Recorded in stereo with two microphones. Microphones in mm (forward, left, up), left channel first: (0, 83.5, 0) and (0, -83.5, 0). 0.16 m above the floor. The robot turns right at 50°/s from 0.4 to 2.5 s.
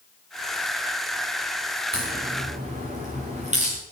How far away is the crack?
About 7 m.